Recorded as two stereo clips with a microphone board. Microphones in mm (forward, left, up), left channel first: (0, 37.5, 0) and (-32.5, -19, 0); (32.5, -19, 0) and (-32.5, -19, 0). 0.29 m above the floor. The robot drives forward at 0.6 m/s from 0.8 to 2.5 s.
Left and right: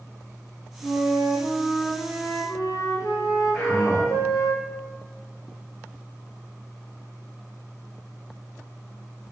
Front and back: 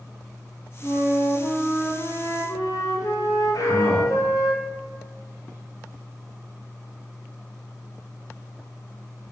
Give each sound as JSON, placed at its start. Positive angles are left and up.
{"t": 0.8, "sound": "a flute", "azimuth_deg": 20, "distance_m": 3.0}
{"t": 3.5, "sound": "a man speaking", "azimuth_deg": -20, "distance_m": 2.0}